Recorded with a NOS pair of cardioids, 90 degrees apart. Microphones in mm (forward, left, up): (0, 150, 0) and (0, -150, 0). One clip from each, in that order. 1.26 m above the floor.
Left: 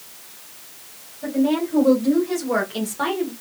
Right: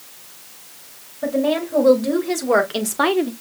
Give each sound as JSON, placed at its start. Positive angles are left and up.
{"t": 1.2, "sound": "a woman speaking", "azimuth_deg": -65, "distance_m": 3.0}